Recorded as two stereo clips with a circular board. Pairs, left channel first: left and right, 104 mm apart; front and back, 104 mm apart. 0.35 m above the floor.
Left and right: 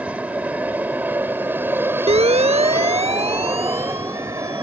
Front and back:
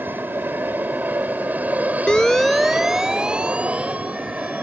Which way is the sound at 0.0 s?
145° right.